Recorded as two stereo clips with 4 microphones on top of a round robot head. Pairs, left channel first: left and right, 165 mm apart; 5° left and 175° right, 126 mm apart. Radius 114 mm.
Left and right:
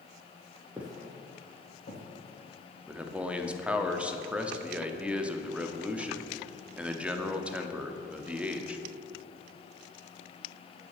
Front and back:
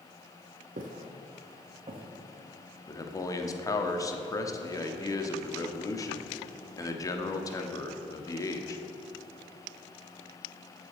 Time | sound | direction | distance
0.8 | footsteps | 170° right | 1.4 m
2.9 | a man speaking | 15° right | 0.8 m